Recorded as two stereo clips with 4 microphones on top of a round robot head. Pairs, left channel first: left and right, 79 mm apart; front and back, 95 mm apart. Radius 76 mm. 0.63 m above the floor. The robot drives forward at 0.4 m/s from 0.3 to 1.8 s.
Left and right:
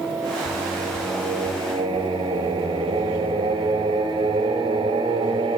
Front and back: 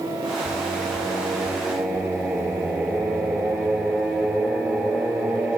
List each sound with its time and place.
0.5 s singing: 95° right, 3 m; by 5.6 s 105° right, 3 m